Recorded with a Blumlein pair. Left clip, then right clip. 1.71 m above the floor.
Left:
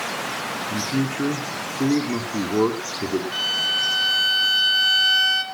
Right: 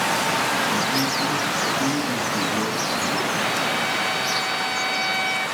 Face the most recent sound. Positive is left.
turn(degrees=50)